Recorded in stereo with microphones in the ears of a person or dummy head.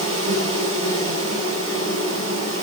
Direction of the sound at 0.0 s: 35° right (ahead or behind).